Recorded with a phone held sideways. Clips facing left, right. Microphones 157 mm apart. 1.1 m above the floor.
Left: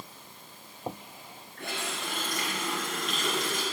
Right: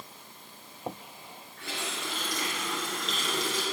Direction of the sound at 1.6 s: 55° left (ahead or behind).